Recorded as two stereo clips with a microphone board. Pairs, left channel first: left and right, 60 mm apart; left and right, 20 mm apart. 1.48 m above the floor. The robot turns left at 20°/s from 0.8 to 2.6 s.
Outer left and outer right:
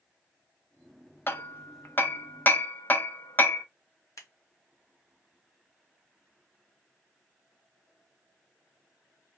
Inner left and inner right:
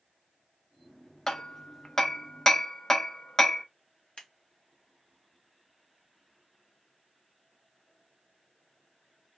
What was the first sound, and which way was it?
Hammering, 40° left (ahead or behind).